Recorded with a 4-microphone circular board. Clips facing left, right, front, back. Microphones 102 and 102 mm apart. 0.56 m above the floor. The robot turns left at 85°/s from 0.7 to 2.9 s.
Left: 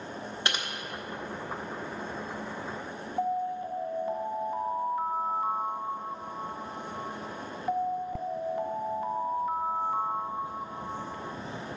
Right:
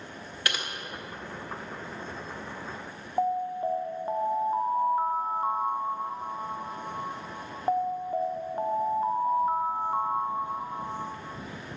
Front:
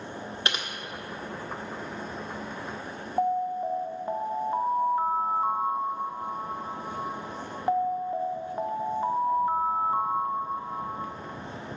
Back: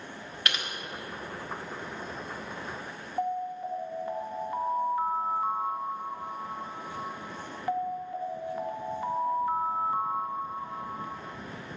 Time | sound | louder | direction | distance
0.5 | typing on a keyboard | even, front 1 dB | 45° left | 1.3 m
3.2 | an alarm | right 3 dB, front 5 dB | 50° right | 0.7 m